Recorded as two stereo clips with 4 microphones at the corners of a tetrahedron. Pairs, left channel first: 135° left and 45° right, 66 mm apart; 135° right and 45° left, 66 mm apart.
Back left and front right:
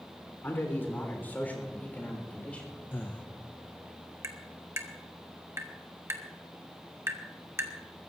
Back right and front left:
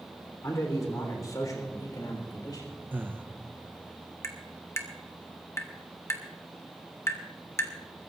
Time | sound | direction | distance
0.4 | a man speaking | 170° right | 3.5 m
2.9 | breathing | 90° left | 0.9 m
4.2 | tapping | 90° right | 1.5 m